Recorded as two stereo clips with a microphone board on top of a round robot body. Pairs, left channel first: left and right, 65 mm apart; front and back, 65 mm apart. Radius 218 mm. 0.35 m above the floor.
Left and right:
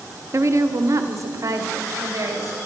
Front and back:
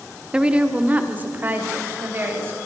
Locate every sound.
0.3 s a woman speaking: 110° right, 1.9 m; by 2.6 s 125° right, 4.5 m